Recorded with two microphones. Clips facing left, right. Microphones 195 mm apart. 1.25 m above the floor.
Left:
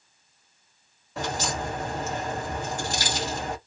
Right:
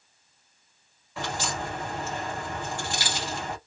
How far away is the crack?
About 1.4 m.